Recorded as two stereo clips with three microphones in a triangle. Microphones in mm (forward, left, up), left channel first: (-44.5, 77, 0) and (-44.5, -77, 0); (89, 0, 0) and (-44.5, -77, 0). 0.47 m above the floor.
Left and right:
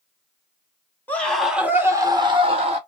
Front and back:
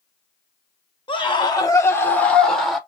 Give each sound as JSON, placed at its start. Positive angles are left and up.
{"t": 1.1, "sound": "a scream", "azimuth_deg": 25, "distance_m": 0.9}